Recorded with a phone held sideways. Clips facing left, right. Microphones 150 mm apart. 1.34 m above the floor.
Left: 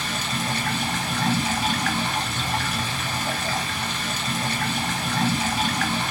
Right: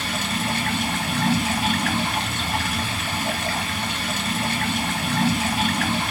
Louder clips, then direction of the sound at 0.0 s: Right 2 dB; 45° right (ahead or behind).